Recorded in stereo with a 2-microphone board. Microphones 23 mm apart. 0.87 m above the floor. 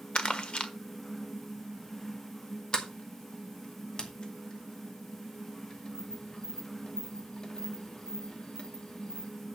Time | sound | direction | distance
0.1 | crumpling | 55° left (ahead or behind) | 1.4 m
2.7 | a sliding door | 40° left (ahead or behind) | 2 m